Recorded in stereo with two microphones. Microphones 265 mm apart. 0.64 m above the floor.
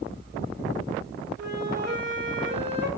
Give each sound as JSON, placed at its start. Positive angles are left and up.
{"t": 1.4, "sound": "a flute", "side_deg": -40, "distance_m": 3.0}